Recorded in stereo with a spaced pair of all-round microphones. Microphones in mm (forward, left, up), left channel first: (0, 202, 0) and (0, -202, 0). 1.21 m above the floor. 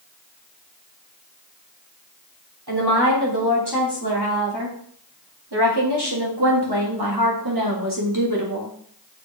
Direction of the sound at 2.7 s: 70° right (ahead or behind).